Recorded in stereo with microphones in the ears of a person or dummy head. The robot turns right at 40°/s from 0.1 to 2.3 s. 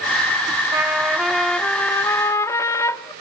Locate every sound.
0.7 s a trumpet: 25° right, 0.9 m; by 3.1 s 40° left, 0.9 m